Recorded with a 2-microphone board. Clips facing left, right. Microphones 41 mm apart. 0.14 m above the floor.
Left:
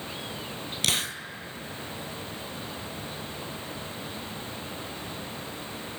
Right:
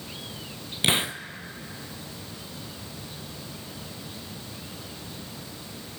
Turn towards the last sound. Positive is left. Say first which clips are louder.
# right 4 dB
turn(degrees=-25)  # may be behind; listen again after turning